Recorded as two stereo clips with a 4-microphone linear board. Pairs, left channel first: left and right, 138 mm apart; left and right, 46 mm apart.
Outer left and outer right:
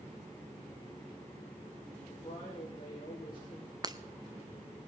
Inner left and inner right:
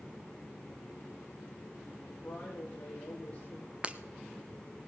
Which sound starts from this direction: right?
Breaking glass, at 3.8 s.